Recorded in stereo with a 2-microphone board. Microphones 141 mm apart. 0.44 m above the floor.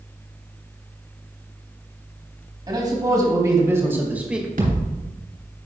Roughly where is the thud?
Right.